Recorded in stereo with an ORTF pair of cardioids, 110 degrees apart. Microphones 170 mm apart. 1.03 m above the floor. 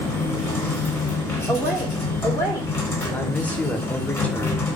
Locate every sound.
0.0 s a machine running: 15° left, 0.9 m
1.5 s a woman speaking: 5° left, 0.6 m
3.1 s a man speaking: 10° left, 0.6 m